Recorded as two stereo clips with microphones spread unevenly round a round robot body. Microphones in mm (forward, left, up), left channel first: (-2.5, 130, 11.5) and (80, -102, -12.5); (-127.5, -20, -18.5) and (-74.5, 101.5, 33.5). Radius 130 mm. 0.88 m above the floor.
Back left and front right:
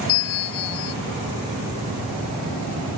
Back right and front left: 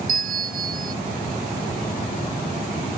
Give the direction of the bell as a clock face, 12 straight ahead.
9 o'clock.